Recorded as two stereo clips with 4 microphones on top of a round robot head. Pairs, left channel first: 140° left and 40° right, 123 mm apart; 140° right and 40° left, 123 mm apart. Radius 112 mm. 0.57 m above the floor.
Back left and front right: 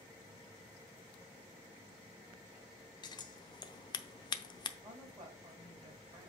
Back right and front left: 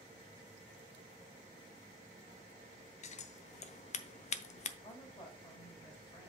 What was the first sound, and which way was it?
Scissors, 165° right.